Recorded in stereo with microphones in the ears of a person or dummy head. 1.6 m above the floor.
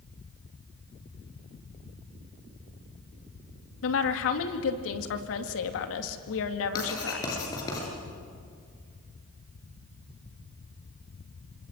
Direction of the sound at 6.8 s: 20° left (ahead or behind).